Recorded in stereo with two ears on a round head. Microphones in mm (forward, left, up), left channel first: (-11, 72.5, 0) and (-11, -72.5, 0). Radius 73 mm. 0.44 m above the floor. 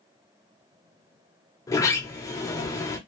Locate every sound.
1.7 s a sliding door: 20° left (ahead or behind), 1.1 m